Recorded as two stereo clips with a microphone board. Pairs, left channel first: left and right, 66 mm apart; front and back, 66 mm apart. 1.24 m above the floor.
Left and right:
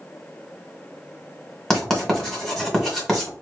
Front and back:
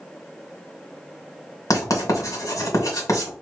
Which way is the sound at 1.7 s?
5° left.